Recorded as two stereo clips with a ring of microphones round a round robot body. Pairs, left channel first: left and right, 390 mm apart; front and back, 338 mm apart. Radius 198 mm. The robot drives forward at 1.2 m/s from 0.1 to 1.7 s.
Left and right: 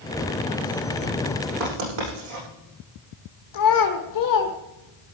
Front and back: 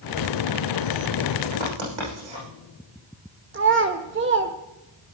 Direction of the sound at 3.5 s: 125° left.